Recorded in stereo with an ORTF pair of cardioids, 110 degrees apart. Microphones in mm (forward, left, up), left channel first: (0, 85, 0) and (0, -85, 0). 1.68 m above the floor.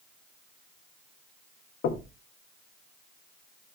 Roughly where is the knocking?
Left.